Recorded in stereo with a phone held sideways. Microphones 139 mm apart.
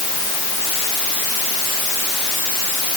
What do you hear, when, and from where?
Only background noise.